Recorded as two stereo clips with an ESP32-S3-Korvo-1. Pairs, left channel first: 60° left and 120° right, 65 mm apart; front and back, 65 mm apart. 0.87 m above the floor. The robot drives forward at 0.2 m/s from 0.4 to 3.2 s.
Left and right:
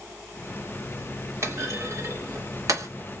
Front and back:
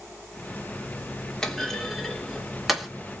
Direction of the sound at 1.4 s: 80° right.